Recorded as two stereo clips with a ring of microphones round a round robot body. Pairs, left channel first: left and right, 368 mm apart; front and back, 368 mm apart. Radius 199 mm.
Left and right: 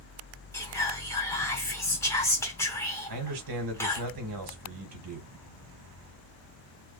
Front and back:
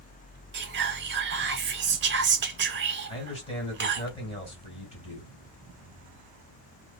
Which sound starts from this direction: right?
A man speaking, at 3.1 s.